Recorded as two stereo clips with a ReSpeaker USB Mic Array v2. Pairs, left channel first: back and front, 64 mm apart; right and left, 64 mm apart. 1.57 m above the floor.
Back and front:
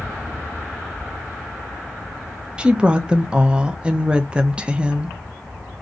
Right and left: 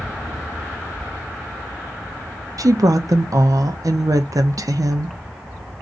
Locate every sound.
2.6 s a woman speaking: 75° left, 0.6 m